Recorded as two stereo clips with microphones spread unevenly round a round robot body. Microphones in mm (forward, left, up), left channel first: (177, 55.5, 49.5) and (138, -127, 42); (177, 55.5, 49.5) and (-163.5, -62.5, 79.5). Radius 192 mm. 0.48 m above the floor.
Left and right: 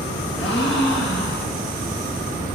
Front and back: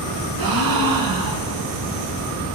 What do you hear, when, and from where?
0.4 s a gasp: 165° left, 2 m